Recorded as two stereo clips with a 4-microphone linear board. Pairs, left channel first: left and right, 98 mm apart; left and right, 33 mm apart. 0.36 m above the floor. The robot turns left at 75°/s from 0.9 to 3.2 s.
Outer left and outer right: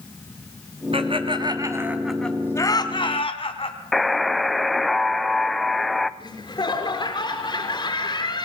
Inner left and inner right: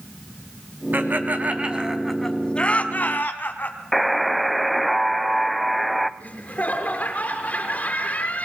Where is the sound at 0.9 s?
70° right (ahead or behind), 3 m; by 3.8 s 70° left (ahead or behind), 3 m.